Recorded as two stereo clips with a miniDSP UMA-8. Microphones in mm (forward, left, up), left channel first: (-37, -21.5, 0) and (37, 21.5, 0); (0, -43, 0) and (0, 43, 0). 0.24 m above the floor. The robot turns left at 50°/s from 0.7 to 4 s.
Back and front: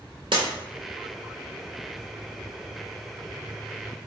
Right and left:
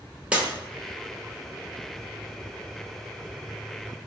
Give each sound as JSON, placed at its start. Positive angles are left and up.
{"t": 0.3, "sound": "breaking glass", "azimuth_deg": 15, "distance_m": 0.8}